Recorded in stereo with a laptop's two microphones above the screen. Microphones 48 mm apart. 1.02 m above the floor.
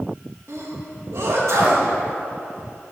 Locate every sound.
0.5 s a sneeze: 65° right (ahead or behind), 1.7 m